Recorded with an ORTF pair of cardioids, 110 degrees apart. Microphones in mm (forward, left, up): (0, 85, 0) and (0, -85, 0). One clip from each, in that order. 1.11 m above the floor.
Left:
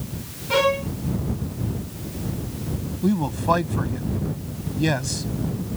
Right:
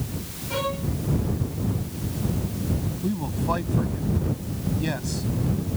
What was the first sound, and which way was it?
A violin, 60° left.